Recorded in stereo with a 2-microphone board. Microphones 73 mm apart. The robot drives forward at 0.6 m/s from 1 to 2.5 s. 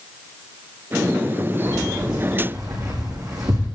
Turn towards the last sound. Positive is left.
turn(degrees=-55)  # may be behind; listen again after turning